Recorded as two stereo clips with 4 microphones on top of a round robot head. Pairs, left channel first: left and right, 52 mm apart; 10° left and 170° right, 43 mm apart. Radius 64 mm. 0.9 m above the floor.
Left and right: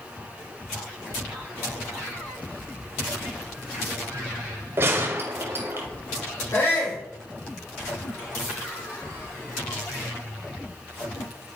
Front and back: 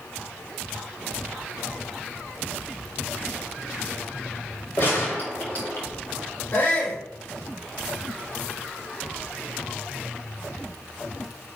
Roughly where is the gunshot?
Ahead right.